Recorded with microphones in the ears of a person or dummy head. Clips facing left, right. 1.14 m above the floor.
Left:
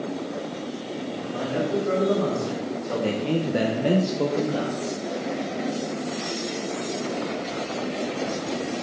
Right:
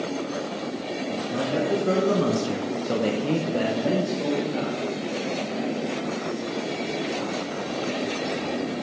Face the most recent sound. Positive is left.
turn(degrees=70)  # may be behind; listen again after turning